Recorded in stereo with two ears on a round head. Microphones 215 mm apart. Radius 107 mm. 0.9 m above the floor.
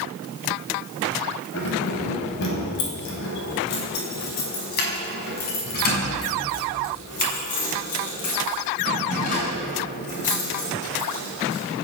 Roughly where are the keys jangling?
Left.